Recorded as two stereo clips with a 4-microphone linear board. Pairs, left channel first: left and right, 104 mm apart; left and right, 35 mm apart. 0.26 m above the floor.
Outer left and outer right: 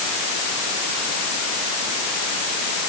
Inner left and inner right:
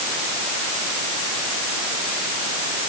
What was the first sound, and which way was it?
Only background noise.